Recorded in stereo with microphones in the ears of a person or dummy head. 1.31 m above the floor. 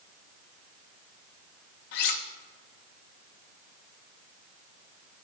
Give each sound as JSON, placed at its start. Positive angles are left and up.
{"t": 1.9, "sound": "cutlery clinking", "side_deg": 40, "distance_m": 0.8}